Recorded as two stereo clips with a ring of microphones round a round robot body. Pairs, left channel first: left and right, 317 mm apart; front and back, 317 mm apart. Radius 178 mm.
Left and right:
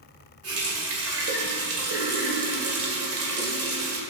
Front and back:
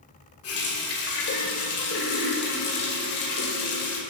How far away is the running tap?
About 2.0 m.